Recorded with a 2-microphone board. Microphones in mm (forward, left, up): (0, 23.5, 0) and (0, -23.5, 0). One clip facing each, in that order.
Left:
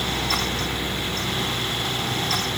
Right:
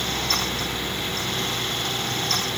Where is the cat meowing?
No cat meowing in this recording.